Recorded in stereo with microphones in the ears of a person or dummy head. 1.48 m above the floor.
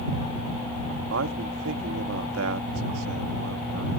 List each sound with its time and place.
1.1 s a man speaking: 85° right